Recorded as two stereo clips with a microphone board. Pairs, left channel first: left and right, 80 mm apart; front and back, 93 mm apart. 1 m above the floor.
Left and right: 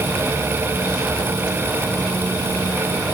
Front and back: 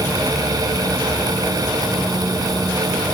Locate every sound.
Only background noise.